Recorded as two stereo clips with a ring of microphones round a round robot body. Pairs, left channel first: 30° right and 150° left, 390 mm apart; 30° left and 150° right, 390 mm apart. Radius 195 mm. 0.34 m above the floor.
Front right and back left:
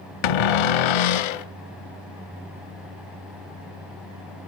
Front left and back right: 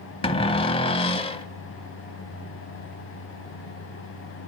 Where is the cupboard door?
45° right, 0.9 m.